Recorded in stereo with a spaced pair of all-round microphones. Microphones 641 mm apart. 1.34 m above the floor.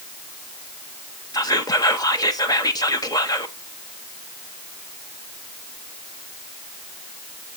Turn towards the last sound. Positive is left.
turn(degrees=5)  # may be behind; listen again after turning